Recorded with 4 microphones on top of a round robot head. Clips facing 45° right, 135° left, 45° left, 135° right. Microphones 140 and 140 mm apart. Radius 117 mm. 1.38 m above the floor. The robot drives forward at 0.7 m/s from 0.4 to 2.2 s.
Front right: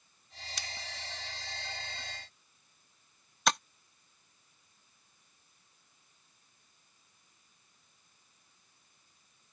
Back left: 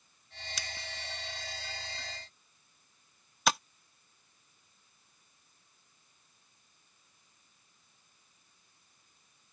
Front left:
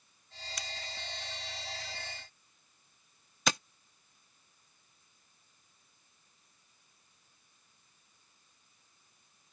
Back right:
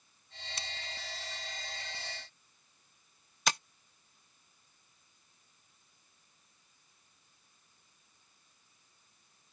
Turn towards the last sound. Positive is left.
turn(degrees=50)